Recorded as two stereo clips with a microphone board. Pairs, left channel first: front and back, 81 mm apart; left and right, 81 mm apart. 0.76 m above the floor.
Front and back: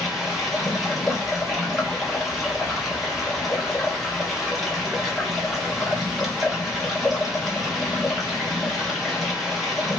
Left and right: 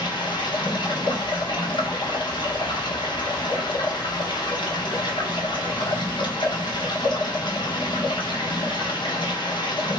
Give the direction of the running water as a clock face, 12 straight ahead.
9 o'clock.